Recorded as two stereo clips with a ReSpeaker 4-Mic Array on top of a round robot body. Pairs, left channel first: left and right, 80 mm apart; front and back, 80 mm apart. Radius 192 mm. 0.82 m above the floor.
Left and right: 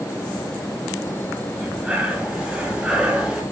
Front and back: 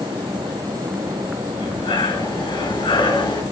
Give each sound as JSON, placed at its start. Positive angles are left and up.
{"t": 1.5, "sound": "breathing", "azimuth_deg": -10, "distance_m": 8.0}